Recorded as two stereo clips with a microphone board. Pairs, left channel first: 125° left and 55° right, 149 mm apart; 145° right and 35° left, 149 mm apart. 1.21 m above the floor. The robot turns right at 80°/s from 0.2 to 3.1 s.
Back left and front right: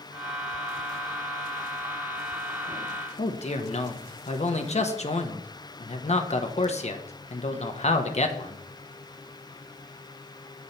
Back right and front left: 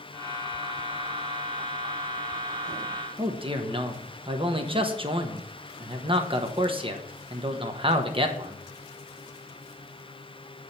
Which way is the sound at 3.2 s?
85° left.